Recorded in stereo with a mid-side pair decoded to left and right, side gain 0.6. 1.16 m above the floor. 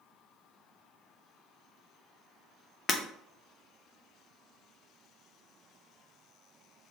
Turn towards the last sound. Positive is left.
turn(degrees=25)